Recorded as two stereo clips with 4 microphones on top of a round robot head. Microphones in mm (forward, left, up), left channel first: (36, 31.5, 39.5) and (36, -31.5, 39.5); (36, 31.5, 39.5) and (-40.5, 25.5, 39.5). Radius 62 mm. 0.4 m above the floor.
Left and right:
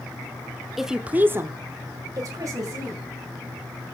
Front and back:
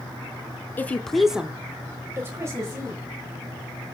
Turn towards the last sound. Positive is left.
turn(degrees=-125)